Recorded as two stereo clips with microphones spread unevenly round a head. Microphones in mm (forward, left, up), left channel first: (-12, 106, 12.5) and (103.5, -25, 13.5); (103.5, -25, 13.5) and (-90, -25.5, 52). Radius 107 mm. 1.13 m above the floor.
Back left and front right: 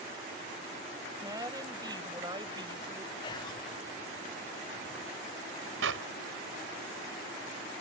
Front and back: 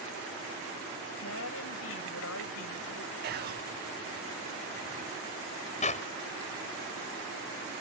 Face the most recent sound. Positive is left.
turn(degrees=-55)